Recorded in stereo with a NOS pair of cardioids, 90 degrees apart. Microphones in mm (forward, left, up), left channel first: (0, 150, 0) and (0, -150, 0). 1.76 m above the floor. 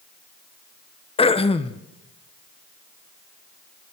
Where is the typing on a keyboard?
No typing on a keyboard in this recording.